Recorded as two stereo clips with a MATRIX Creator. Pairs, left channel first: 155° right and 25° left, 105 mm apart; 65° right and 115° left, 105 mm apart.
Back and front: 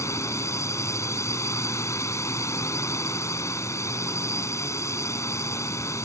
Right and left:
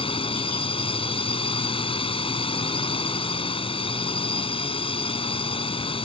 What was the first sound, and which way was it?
A drone, 95° right.